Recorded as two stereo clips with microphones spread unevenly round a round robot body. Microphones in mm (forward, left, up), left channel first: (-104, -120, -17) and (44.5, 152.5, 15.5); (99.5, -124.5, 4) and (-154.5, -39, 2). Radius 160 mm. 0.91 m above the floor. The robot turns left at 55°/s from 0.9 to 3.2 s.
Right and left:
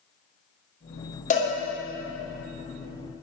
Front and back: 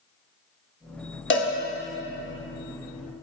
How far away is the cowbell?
About 1.5 m.